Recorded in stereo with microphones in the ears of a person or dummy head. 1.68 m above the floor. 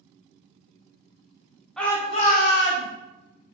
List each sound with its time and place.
1.8 s a shout: 5° left (ahead or behind), 1.0 m; by 2.9 s 75° left (ahead or behind), 1.1 m